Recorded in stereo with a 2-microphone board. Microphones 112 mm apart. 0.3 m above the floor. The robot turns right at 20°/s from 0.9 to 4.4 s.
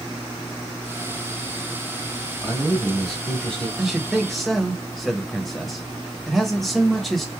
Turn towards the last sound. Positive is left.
turn(degrees=0)  # may be behind; listen again after turning